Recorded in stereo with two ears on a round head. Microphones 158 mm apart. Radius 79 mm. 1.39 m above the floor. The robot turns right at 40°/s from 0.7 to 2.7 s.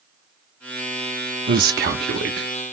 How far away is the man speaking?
About 0.7 m.